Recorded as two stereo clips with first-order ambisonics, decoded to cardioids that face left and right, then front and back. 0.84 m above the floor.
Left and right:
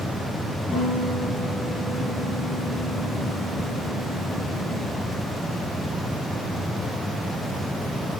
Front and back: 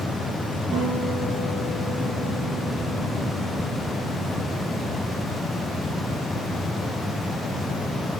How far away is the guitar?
About 9.5 m.